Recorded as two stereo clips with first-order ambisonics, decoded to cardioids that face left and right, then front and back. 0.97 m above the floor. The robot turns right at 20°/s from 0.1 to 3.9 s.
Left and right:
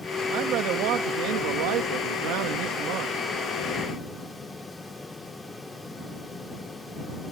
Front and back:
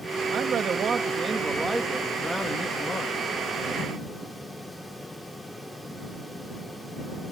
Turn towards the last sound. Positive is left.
turn(degrees=-50)